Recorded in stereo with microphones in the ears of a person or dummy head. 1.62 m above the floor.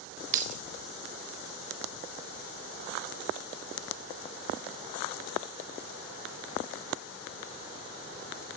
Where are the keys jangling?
45° right (ahead or behind), 1.4 m.